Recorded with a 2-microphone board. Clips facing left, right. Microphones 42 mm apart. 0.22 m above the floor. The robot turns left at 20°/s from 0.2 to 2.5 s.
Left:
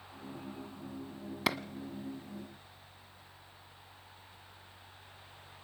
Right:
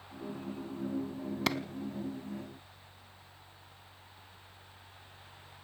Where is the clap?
5° left (ahead or behind), 1.1 m; by 1.6 s 10° left (ahead or behind), 1.1 m.